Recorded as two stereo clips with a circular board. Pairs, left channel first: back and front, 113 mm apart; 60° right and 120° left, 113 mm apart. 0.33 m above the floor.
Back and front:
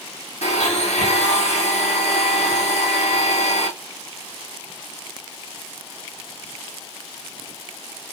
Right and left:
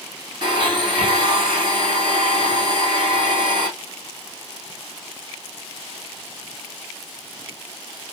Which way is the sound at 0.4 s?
170° left.